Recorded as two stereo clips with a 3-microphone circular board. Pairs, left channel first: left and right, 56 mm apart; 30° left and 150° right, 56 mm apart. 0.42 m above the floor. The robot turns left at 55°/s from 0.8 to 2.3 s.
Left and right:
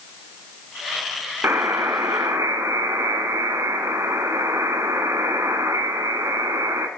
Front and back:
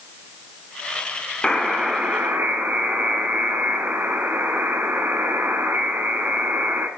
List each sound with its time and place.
1.4 s a buzzer: 50° right, 0.7 m; by 6.9 s 95° right, 0.7 m